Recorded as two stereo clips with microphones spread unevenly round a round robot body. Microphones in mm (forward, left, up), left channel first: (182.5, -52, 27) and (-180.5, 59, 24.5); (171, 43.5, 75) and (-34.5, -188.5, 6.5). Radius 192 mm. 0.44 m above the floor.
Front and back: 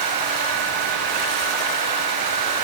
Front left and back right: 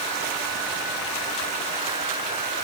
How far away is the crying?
No crying in this recording.